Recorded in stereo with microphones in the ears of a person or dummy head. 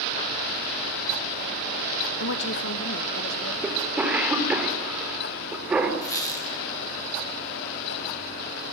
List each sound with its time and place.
2.2 s a woman speaking: 65° left (ahead or behind), 1.3 m; by 3.5 s 55° left (ahead or behind), 2.5 m
3.6 s a cough: 5° right (ahead or behind), 4.5 m
6.0 s a squeak: 15° left (ahead or behind), 4 m